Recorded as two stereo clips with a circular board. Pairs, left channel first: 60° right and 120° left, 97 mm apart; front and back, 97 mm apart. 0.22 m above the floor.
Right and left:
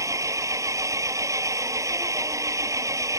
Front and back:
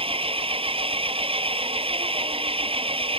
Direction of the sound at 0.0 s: 175° left.